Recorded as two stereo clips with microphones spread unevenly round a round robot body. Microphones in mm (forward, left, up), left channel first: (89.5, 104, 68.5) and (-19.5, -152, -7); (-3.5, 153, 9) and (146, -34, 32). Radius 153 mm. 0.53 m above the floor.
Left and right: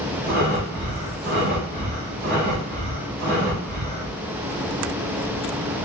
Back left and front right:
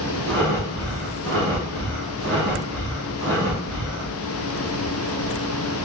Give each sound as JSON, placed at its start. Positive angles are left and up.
{"t": 0.3, "sound": "breathing", "azimuth_deg": -70, "distance_m": 1.2}